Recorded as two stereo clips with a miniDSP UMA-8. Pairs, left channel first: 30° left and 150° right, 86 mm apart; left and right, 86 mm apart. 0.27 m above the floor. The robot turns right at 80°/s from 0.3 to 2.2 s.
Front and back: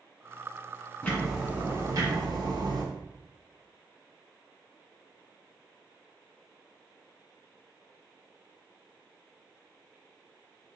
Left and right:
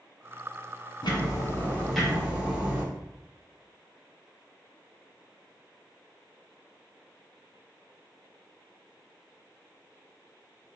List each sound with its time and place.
1.0 s ticking: 100° left, 1.4 m; by 2.8 s 165° right, 1.4 m